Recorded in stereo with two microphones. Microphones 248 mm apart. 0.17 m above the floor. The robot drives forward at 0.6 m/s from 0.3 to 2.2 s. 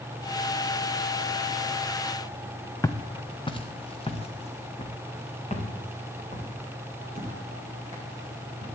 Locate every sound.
2.8 s footsteps: 10° left (ahead or behind), 0.8 m; by 8.8 s 30° left (ahead or behind), 6 m